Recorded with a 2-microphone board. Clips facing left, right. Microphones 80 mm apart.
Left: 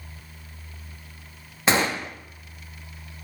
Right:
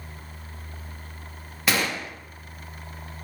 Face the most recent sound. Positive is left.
turn(degrees=30)  # may be behind; listen again after turning